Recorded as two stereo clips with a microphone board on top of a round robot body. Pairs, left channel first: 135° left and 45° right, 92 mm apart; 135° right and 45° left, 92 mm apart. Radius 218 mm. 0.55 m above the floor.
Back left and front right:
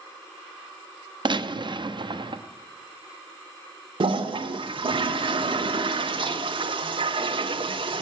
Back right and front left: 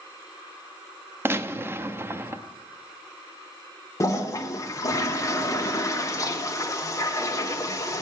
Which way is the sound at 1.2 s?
20° right.